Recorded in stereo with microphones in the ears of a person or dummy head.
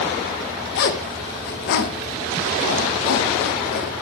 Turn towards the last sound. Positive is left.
turn(degrees=55)  # may be behind; listen again after turning